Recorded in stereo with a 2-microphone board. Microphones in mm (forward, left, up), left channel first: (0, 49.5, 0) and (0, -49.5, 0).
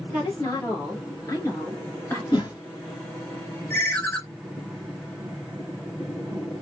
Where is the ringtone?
25° left (ahead or behind), 1.4 m.